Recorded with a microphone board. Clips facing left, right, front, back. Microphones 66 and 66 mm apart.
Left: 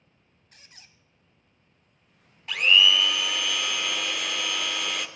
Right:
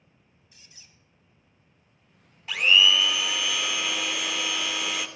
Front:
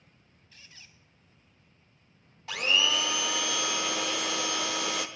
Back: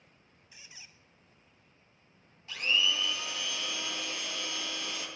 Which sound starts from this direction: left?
A squeak, at 0.5 s.